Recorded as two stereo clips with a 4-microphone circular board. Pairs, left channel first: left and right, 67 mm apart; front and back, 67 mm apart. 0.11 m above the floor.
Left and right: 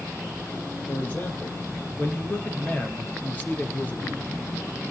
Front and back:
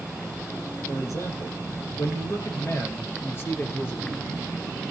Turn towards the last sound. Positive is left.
turn(degrees=40)